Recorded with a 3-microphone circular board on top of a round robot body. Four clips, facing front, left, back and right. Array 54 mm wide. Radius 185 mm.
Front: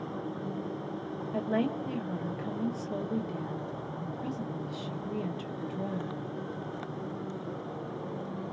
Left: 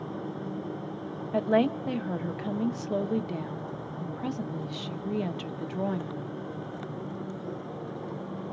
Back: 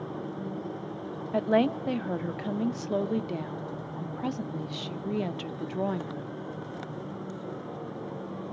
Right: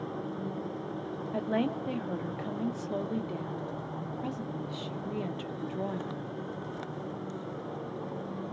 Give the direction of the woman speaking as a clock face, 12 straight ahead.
7 o'clock.